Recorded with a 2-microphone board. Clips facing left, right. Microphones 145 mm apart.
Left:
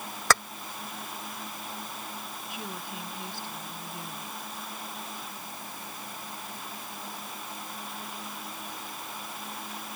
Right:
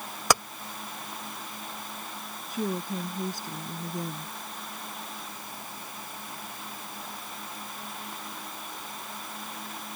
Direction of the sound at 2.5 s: 40° right (ahead or behind).